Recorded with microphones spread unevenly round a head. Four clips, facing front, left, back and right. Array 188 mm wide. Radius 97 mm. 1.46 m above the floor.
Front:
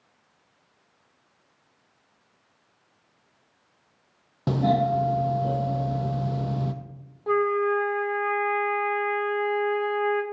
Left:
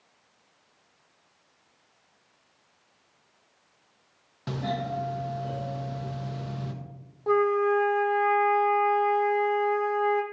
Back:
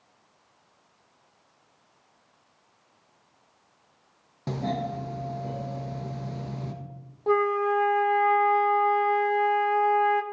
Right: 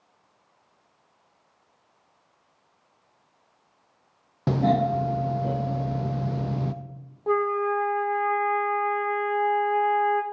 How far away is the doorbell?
About 0.6 m.